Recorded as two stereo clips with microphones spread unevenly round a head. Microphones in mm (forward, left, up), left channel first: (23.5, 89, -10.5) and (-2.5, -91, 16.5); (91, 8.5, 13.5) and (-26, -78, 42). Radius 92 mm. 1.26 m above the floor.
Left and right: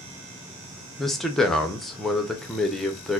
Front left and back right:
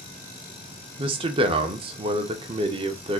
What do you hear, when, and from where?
1.0 s a man speaking: 160° left, 0.6 m